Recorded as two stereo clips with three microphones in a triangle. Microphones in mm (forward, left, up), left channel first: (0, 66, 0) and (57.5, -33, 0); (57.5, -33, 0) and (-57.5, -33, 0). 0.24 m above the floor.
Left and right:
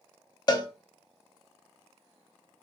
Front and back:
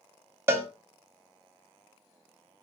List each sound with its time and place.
0.5 s a cowbell: 130° left, 0.5 m